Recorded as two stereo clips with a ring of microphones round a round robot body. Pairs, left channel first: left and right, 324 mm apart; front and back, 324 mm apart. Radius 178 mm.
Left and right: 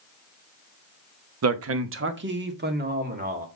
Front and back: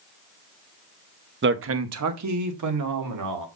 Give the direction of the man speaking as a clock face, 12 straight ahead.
4 o'clock.